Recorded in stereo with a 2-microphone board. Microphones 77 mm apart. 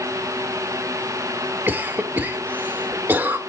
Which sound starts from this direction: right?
A cough, at 1.7 s.